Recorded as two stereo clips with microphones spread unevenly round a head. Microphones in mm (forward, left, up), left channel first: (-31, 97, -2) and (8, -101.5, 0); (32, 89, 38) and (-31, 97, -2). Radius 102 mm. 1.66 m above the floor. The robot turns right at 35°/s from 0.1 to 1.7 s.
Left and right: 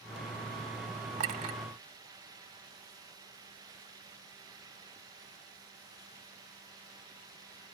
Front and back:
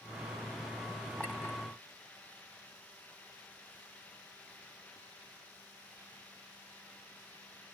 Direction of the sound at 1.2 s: 80° right.